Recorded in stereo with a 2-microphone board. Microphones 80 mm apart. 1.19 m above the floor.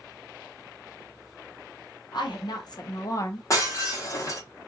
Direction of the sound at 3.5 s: 40° left (ahead or behind).